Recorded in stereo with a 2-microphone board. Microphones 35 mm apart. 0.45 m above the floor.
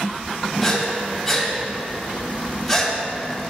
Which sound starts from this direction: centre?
Breathing, at 0.6 s.